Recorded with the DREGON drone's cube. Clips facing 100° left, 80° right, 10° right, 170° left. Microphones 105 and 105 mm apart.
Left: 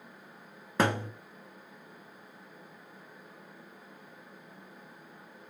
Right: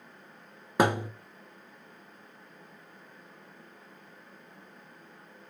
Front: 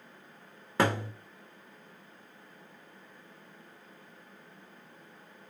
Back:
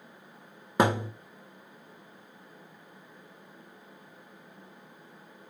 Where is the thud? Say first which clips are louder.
Right 3 dB, back 3 dB; 140° right, 1.1 m.